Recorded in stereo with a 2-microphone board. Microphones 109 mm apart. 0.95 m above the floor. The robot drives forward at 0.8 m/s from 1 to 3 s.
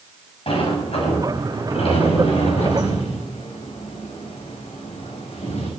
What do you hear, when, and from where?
0.5 s a sliding door: 60° left (ahead or behind), 6 m; by 5.7 s 75° left (ahead or behind), 5.5 m